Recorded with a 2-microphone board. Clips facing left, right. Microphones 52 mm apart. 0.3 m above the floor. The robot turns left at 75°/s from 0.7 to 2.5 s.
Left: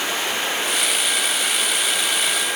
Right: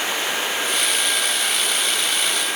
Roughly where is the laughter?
I don't hear laughter.